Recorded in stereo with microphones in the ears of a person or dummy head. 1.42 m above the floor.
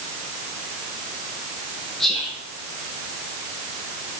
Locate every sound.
2.0 s whispering: 5° left (ahead or behind), 1.3 m